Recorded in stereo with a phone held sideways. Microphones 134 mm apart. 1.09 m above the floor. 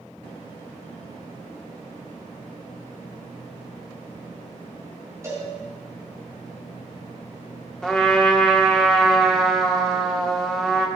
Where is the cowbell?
20° right (ahead or behind), 6 m.